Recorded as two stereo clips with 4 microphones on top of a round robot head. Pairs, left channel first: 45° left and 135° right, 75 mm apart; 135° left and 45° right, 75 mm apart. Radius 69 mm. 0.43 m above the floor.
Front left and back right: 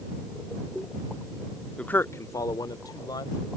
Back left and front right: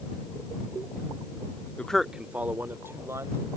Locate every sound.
1.8 s a man speaking: 95° left; by 3.5 s 10° left